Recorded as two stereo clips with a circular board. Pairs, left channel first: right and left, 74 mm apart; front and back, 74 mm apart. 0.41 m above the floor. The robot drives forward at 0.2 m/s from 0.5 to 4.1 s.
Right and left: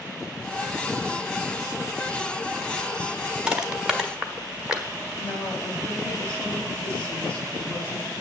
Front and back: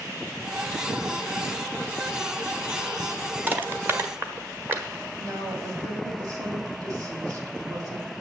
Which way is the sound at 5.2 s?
155° right.